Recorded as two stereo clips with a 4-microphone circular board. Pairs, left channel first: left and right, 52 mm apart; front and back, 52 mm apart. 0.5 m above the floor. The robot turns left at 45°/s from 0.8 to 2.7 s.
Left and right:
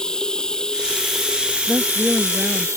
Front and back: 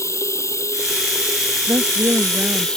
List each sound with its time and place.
0.0 s running water: 15° left; by 2.8 s 75° right
1.7 s a woman speaking: 155° right; by 2.7 s 160° left